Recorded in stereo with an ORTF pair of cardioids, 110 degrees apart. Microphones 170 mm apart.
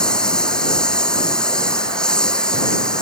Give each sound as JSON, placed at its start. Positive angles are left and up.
{"t": 0.0, "sound": "a lawn mower", "azimuth_deg": 5}